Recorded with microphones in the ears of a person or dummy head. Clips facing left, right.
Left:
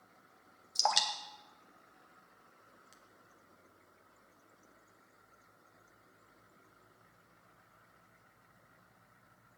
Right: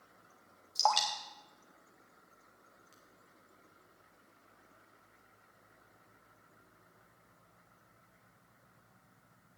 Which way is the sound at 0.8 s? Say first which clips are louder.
Right 3 dB; 15° left (ahead or behind).